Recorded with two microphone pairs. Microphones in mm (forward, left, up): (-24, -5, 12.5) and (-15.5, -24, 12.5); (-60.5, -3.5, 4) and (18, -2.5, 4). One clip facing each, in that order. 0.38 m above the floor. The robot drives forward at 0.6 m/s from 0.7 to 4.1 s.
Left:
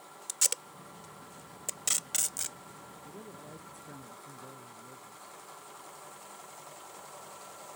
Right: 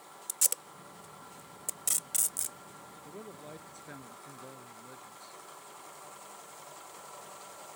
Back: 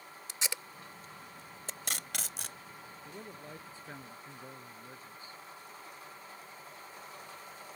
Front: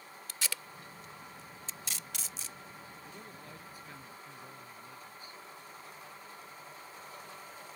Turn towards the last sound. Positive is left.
turn(degrees=-120)